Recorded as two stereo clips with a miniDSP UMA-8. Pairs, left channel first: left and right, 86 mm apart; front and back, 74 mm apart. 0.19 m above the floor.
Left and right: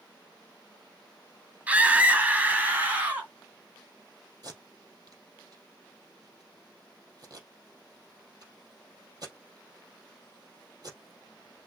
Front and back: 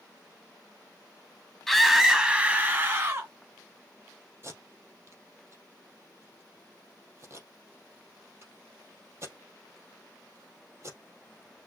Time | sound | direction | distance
1.7 | a scream | 80° right | 1.0 m
4.4 | tape being pulled | 130° right | 3 m